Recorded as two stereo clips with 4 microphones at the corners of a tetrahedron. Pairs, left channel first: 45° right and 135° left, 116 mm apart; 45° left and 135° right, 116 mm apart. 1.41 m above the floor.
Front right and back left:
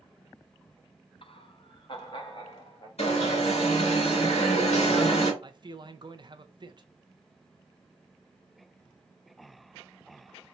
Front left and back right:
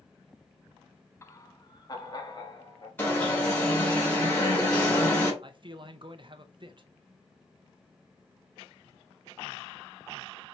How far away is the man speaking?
About 0.6 m.